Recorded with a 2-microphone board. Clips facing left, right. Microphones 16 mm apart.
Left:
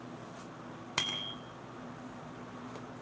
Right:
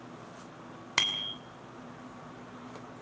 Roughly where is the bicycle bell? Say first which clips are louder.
Right 5 dB; right.